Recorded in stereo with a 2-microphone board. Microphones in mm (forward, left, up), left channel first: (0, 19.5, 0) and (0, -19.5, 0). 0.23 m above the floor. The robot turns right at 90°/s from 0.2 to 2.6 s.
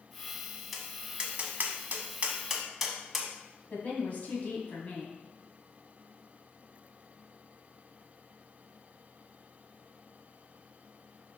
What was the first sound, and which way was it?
Tapping, centre (ahead or behind).